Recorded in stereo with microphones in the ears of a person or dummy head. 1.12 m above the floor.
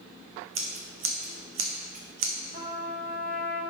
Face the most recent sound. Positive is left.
turn(degrees=-40)  # may be behind; listen again after turning